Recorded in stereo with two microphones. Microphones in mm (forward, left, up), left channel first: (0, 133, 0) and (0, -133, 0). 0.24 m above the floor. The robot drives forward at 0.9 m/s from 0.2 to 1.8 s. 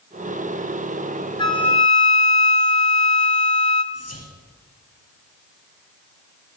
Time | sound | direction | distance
1.4 | a flute | 20° left (ahead or behind) | 1.3 m
3.9 | whispering | 65° left (ahead or behind) | 5 m